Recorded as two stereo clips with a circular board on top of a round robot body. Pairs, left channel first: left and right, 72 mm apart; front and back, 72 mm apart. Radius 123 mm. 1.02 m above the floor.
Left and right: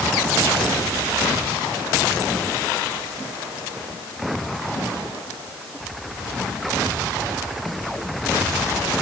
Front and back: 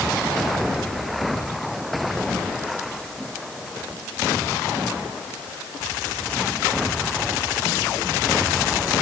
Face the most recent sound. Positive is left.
No sound to turn to.